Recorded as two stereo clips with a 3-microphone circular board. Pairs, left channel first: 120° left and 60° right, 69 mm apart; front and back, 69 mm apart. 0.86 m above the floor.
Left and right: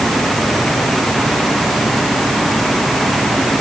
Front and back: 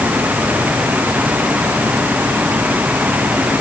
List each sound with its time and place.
Only background noise.